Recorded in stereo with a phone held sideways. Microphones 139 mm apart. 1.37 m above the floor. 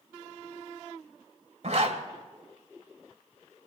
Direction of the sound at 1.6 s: 60° right (ahead or behind).